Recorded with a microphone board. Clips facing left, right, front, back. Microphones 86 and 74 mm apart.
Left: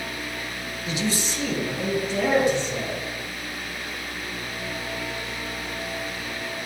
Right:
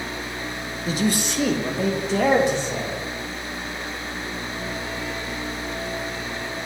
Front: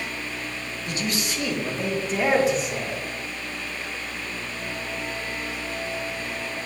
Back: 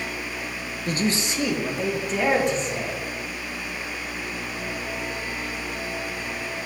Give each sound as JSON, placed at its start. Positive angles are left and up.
{"t": 0.9, "sound": "a man speaking", "azimuth_deg": -140, "distance_m": 0.8}